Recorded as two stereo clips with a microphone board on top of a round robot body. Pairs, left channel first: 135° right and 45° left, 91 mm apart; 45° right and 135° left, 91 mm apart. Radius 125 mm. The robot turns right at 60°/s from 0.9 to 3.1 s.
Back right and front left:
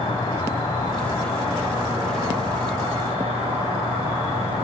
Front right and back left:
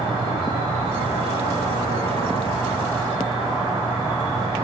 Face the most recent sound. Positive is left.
turn(degrees=45)